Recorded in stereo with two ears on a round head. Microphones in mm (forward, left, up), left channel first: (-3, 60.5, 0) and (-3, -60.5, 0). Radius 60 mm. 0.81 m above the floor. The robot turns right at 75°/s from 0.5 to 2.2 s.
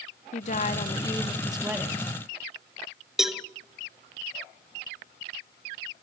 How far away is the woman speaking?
About 1.2 m.